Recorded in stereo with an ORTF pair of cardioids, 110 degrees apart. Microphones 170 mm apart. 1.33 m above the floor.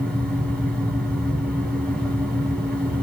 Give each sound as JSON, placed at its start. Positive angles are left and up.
{"t": 0.0, "sound": "a fan", "azimuth_deg": 5, "distance_m": 0.7}